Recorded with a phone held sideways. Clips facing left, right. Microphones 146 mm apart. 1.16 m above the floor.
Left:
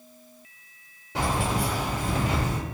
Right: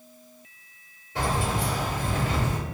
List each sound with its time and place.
1.1 s keys jangling: 80° left, 1.6 m